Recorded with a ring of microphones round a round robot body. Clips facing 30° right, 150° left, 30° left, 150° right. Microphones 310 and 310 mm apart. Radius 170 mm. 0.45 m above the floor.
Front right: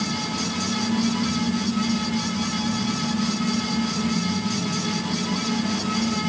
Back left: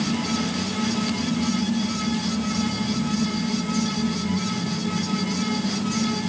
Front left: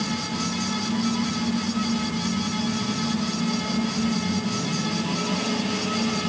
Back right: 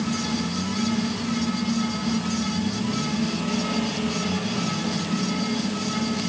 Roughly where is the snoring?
No snoring in this recording.